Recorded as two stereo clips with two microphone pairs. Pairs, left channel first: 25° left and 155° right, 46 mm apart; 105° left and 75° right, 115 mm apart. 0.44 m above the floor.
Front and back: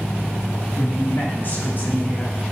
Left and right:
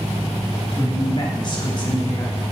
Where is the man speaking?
60° left, 3 m.